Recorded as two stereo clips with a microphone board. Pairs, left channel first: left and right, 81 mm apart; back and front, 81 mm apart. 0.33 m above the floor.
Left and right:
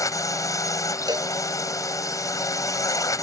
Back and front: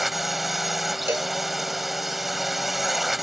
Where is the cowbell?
60° right.